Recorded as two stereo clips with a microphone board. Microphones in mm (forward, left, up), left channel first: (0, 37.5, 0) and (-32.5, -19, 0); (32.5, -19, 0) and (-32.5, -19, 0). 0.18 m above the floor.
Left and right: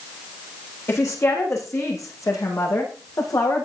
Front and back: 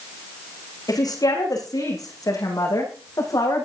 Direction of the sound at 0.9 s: 15° left.